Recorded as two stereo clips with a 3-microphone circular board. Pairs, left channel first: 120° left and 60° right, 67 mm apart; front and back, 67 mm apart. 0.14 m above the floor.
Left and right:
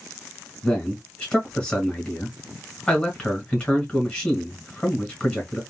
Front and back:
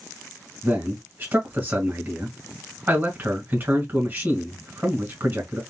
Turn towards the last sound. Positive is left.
turn(degrees=175)